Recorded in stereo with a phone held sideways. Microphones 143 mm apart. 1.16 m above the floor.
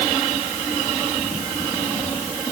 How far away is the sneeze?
No sneeze in this recording.